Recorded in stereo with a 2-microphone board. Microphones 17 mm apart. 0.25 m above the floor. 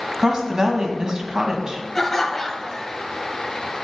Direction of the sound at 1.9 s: 25° left (ahead or behind).